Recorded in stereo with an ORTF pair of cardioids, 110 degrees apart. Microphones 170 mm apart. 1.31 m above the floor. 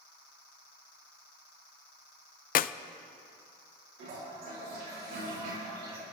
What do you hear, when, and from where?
2.5 s a clap: 55° left, 0.5 m
4.0 s a toilet flushing: 60° right, 5.5 m